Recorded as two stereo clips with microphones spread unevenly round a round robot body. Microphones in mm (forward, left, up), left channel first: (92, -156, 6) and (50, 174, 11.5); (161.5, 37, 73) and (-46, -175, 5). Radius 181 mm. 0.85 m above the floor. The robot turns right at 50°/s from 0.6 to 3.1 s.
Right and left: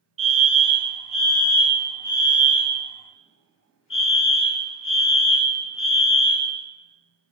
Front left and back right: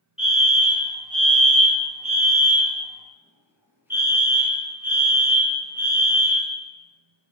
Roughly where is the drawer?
I don't hear a drawer.